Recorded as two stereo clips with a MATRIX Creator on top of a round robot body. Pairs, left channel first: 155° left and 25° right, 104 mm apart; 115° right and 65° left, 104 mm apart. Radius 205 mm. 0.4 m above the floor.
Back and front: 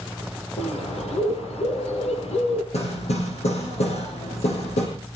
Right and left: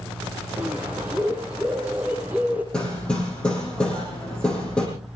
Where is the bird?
145° left, 4.5 m.